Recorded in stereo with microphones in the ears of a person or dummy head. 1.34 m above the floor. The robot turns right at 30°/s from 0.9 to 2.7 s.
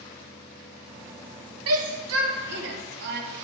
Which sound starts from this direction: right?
A shout, at 1.7 s.